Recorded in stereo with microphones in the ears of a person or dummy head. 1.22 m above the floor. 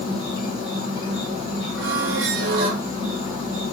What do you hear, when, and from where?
0.0 s an insect: 25° left (ahead or behind), 1.8 m
1.8 s a squeak: 60° right (ahead or behind), 0.7 m